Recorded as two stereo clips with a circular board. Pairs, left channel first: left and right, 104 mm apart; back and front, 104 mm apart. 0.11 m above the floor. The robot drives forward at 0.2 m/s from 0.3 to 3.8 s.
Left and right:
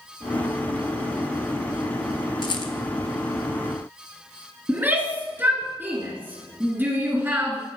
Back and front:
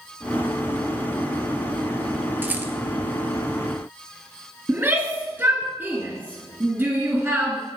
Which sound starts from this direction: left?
A rattle, at 2.4 s.